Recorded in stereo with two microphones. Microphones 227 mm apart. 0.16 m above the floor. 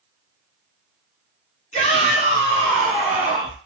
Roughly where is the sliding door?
I don't hear a sliding door.